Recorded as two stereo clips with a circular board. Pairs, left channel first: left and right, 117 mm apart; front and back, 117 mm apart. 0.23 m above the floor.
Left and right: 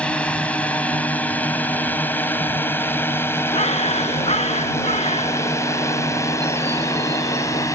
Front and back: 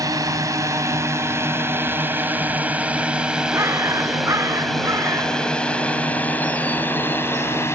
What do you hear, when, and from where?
0.0 s a drone: 160° left; by 7.8 s 50° left
3.5 s a bird: 115° left